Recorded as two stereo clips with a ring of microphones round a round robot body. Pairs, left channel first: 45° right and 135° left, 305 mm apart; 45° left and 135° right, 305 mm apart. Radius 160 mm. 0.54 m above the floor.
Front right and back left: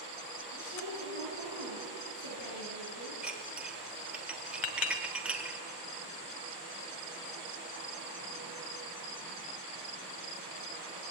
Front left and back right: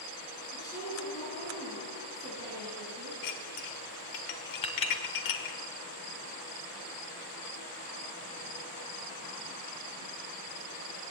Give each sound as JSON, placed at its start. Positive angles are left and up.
{"t": 0.5, "sound": "a woman speaking", "azimuth_deg": -35, "distance_m": 8.5}
{"t": 3.2, "sound": "dishes clattering", "azimuth_deg": 50, "distance_m": 1.5}
{"t": 4.6, "sound": "a clink", "azimuth_deg": -25, "distance_m": 1.8}